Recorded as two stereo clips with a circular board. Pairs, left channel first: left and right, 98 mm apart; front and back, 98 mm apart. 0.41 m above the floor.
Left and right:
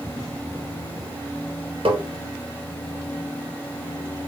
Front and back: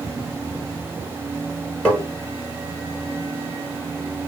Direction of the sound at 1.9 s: 80° right.